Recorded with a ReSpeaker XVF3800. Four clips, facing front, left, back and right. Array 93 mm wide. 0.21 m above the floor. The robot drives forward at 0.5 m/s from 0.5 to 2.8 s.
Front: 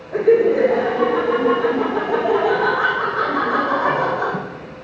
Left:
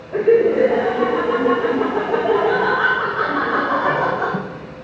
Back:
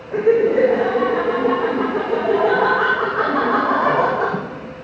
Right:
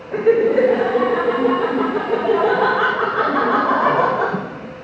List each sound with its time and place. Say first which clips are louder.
0.1 s laughter: even, front 1 dB; 120° right, 4.5 m; by 4.8 s 130° right, 5.5 m